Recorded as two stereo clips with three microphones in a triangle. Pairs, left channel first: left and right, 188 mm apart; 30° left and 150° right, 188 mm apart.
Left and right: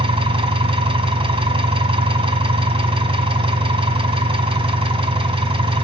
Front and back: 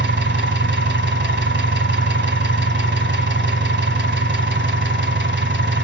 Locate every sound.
0.0 s an engine running: 150° right, 1.6 m